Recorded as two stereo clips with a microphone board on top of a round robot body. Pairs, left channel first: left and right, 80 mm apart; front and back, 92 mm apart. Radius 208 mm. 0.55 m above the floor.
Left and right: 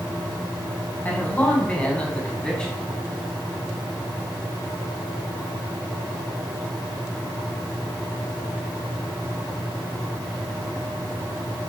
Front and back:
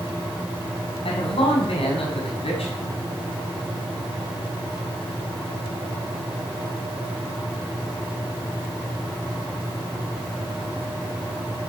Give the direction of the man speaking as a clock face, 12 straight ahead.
11 o'clock.